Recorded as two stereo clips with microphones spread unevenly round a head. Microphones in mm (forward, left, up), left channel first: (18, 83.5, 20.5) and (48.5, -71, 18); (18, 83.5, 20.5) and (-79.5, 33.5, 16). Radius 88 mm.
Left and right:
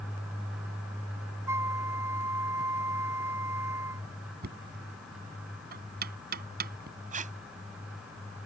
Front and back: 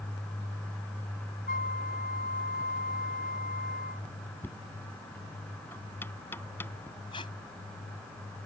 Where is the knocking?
50° right.